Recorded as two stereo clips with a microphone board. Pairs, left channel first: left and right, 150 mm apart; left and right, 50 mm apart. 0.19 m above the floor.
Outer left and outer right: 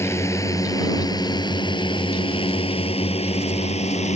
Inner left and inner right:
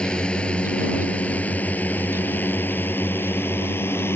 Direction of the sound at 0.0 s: 15° left (ahead or behind).